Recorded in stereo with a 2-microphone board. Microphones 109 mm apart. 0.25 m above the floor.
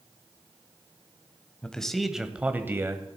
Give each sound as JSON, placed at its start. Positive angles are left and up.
{"t": 1.6, "sound": "a man speaking", "side_deg": 10, "distance_m": 1.0}